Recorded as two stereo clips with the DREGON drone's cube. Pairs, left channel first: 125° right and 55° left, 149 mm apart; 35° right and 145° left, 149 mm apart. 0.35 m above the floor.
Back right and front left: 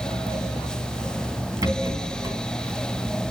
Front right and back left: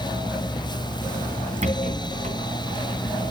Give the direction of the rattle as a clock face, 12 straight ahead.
8 o'clock.